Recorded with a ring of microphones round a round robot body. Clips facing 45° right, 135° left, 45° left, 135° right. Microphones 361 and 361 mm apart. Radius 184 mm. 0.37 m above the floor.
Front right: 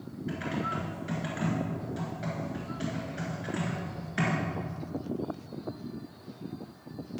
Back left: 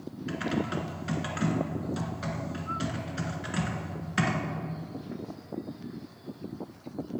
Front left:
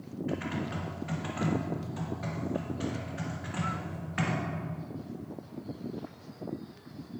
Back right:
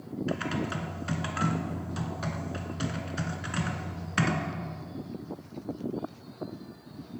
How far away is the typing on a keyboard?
About 1.4 m.